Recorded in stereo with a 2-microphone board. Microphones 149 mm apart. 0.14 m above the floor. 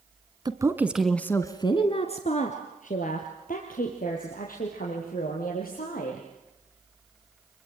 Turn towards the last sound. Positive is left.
turn(degrees=80)